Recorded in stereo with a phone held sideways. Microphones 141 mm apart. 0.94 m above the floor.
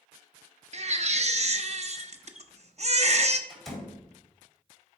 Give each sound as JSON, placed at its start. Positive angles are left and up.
{"t": 0.7, "sound": "a baby crying", "side_deg": -50, "distance_m": 0.6}
{"t": 3.5, "sound": "a door slam", "side_deg": 5, "distance_m": 3.0}